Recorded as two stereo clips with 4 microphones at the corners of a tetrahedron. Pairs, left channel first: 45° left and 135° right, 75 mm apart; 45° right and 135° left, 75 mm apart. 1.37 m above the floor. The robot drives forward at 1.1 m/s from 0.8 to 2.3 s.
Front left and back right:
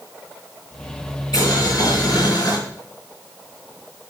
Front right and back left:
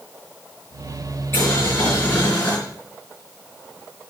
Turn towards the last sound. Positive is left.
turn(degrees=20)